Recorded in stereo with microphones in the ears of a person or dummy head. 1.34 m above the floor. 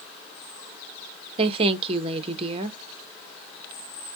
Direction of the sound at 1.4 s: 35° right (ahead or behind).